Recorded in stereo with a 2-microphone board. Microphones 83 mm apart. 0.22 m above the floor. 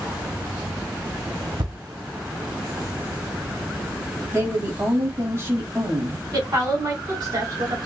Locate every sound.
1.6 s a thud: 75° right (ahead or behind), 1.7 m
4.3 s a woman speaking: 30° right (ahead or behind), 1.4 m
6.3 s a woman speaking: 45° right (ahead or behind), 2 m